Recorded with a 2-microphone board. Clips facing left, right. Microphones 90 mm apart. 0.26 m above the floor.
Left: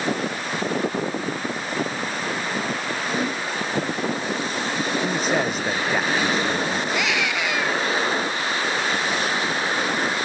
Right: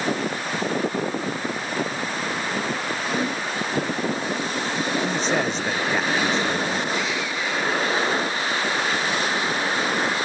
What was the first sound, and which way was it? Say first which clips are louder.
A man speaking: left 2 dB; 5° left (ahead or behind).